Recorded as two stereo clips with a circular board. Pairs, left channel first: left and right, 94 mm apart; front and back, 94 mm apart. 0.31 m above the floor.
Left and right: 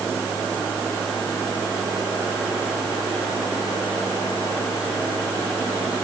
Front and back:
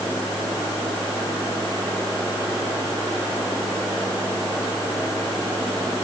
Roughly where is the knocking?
I don't hear knocking.